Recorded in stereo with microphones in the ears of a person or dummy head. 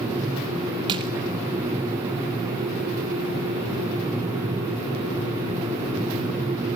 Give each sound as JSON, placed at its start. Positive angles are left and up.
{"t": 0.9, "sound": "crushing", "side_deg": -30, "distance_m": 2.0}